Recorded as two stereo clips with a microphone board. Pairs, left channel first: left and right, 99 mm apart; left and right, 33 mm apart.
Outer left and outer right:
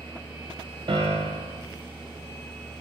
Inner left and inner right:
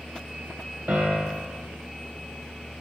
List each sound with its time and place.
0.9 s a piano: 70° right (ahead or behind), 0.6 m